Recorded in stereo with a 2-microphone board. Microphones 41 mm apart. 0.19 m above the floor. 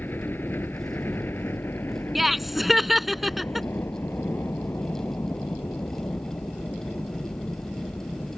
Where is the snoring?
No snoring in this recording.